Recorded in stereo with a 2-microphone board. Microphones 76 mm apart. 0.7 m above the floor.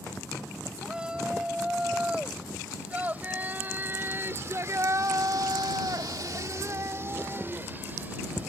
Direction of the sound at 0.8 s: 15° right (ahead or behind).